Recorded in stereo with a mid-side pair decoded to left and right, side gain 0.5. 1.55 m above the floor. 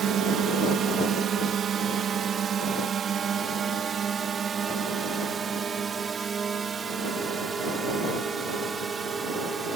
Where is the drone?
55° right; by 9.8 s 35° right.